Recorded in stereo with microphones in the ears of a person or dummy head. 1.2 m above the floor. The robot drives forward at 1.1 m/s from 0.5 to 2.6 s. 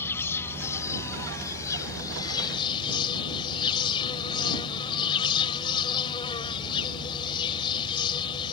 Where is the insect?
15° left (ahead or behind); by 8.5 s 25° left (ahead or behind).